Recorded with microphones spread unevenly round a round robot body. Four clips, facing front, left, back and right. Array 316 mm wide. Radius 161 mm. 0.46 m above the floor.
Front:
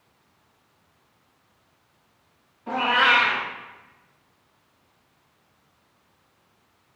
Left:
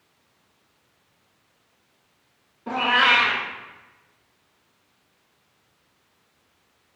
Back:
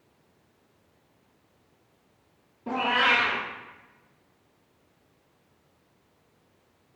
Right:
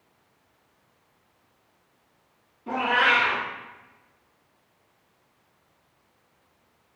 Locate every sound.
2.7 s a cat meowing: 160° left, 1.0 m